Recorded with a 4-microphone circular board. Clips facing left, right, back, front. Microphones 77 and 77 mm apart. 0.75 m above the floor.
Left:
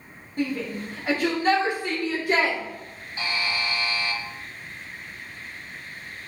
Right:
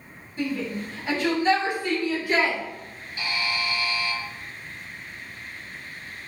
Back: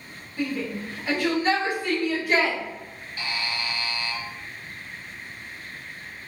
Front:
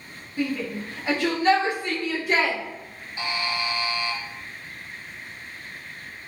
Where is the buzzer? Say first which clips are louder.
Even, front 3 dB; 55° left, 0.6 m.